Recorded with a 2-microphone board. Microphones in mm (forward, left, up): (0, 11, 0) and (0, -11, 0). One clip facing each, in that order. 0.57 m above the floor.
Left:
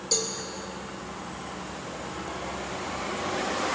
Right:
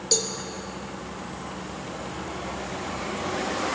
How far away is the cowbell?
About 2 m.